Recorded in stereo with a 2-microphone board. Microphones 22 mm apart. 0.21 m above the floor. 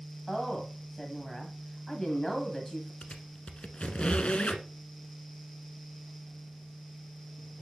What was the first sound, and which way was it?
A woman speaking, 15° left (ahead or behind).